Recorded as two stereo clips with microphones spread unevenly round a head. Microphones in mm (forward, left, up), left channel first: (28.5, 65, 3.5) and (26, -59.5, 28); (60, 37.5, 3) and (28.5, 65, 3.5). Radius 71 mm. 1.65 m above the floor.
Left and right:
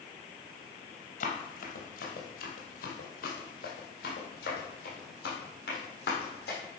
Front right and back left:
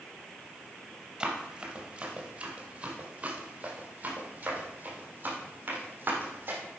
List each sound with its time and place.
1.2 s running footsteps: 75° left, 2.5 m; by 6.6 s 115° left, 4.5 m